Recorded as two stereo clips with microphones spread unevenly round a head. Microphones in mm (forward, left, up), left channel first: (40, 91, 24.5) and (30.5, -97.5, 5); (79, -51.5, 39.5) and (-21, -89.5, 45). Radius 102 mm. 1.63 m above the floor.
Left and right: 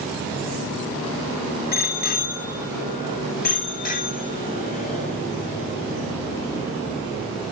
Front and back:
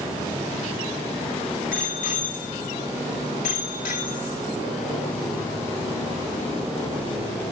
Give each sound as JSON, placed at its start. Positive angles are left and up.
{"t": 1.7, "sound": "a bicycle bell", "azimuth_deg": 50, "distance_m": 8.5}